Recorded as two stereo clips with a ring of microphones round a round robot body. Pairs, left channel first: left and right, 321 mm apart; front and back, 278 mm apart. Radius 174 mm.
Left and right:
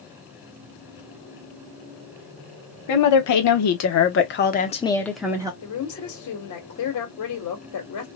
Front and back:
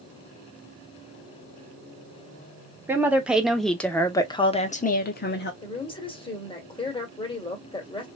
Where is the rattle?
No rattle in this recording.